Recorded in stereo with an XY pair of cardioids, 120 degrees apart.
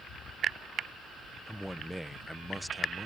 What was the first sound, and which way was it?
A man speaking, 5° right.